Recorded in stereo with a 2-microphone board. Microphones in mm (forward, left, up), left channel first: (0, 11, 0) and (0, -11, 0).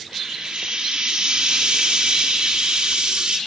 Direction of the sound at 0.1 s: 60° right (ahead or behind).